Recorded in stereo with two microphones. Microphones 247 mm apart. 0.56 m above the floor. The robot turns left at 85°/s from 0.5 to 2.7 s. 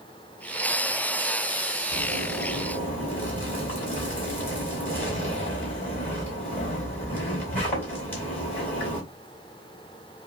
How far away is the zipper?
About 2.5 m.